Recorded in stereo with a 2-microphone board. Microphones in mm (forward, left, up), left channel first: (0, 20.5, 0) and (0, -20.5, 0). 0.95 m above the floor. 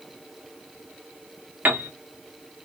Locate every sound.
1.6 s a piano: 45° right (ahead or behind), 0.6 m